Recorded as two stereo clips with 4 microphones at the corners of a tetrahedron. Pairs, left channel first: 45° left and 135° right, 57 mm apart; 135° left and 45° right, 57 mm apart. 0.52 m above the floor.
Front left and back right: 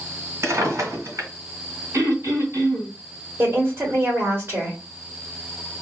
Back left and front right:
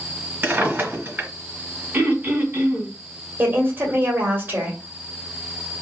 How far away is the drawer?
About 2.5 m.